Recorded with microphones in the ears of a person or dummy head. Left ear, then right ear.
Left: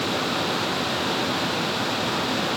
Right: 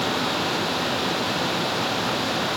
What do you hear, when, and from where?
Only background noise.